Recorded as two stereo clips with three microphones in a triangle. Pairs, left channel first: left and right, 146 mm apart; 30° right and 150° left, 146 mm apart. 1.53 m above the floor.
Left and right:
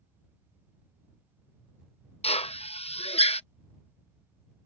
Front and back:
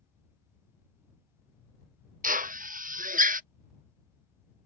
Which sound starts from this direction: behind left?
A drill, at 2.2 s.